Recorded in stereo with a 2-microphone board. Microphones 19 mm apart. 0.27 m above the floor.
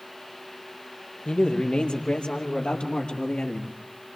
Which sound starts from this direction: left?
A man speaking, at 1.2 s.